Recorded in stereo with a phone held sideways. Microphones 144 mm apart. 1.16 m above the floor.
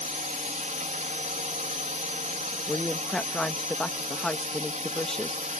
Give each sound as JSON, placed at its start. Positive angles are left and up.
{"t": 0.0, "sound": "a drone", "side_deg": -55}
{"t": 2.7, "sound": "a woman speaking", "side_deg": 5}